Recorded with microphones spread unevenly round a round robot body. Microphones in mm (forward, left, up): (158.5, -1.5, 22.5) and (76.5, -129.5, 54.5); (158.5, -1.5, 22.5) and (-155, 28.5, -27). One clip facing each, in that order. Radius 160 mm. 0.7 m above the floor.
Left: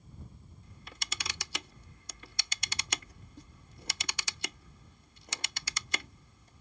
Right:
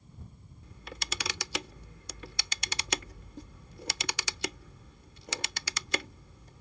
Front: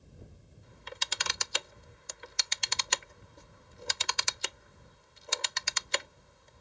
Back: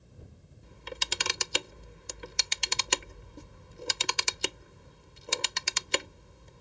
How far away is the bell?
I don't hear a bell.